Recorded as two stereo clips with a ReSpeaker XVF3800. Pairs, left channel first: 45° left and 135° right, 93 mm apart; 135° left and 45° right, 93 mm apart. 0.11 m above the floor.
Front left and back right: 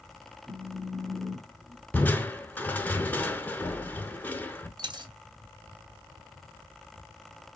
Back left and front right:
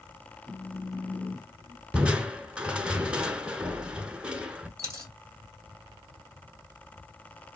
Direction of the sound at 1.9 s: 10° left.